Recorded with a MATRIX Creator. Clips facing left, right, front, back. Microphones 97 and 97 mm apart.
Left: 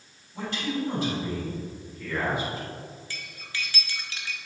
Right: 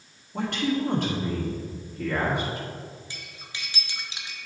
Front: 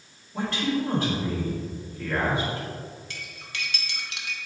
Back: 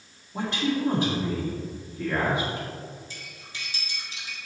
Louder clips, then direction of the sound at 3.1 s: Left 3 dB, front 3 dB; 20° right.